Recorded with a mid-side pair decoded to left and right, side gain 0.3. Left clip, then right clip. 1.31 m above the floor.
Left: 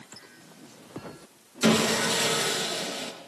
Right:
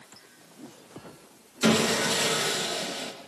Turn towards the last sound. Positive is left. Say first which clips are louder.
# even
turn(degrees=15)